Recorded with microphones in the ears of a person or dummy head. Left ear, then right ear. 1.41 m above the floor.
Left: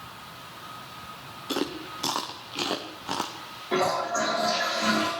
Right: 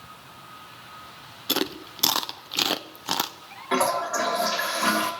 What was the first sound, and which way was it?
Chewing, 55° right (ahead or behind).